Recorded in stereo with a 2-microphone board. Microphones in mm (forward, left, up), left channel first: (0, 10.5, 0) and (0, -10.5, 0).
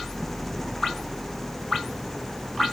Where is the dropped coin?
I don't hear a dropped coin.